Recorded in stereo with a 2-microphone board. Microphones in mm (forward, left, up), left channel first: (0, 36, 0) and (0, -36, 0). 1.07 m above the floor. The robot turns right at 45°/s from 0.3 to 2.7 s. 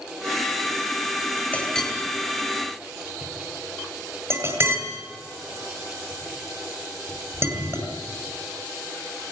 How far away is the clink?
About 10 m.